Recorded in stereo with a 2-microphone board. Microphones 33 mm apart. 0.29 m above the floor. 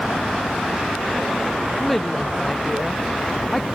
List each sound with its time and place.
1.8 s a woman speaking: 5° left (ahead or behind)